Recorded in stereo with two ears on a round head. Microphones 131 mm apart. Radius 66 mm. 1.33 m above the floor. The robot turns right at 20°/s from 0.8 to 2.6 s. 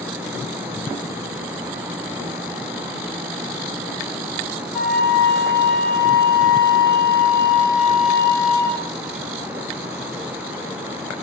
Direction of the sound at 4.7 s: 5° left (ahead or behind).